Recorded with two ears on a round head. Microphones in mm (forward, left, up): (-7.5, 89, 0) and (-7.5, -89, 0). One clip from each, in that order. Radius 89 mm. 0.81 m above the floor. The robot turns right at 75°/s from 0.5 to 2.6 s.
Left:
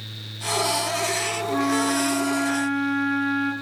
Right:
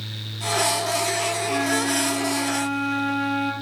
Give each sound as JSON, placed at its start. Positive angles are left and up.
{"t": 1.5, "sound": "a flute", "azimuth_deg": -110, "distance_m": 2.0}